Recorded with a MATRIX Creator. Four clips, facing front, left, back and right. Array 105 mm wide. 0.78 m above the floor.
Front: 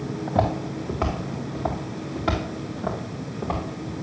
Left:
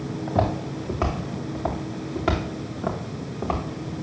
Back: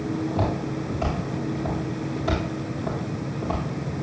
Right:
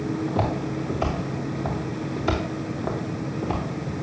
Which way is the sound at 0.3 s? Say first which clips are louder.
Left 1 dB, front 2 dB; 45° left.